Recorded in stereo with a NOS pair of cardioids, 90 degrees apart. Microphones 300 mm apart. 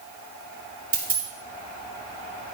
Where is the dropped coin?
30° right, 1.9 m.